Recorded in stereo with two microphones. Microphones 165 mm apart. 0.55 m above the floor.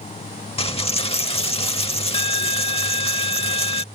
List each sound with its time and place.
0.6 s a dropped coin: 35° left (ahead or behind)